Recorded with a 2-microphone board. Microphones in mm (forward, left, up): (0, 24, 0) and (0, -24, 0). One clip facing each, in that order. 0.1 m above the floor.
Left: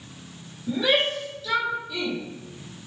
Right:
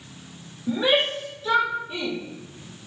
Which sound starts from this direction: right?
A shout, at 0.7 s.